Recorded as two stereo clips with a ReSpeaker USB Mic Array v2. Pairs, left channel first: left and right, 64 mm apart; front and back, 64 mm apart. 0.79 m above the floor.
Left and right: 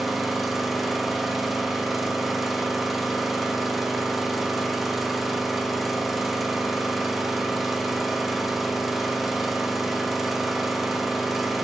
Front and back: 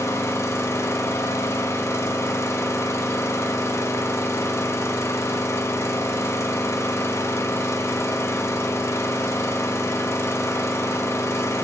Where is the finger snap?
No finger snap in this recording.